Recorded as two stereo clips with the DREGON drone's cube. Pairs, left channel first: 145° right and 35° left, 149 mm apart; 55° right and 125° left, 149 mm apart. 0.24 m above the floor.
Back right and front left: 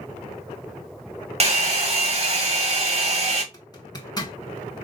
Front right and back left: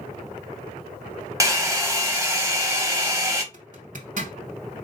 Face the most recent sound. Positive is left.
turn(degrees=150)